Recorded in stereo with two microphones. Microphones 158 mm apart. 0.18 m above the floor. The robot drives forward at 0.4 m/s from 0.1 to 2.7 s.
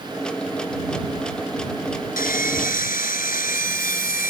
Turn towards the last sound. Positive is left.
turn(degrees=65)  # may be behind; listen again after turning